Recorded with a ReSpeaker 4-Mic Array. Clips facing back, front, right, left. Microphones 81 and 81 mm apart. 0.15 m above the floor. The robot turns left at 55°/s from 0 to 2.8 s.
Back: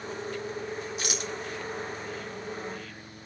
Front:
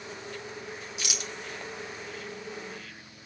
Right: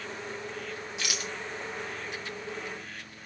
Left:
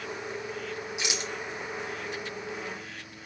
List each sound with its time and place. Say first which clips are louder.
1.0 s a rattle: back 4 dB, left 1 dB; 160° left, 1.9 m; by 1.3 s 140° left, 1.9 m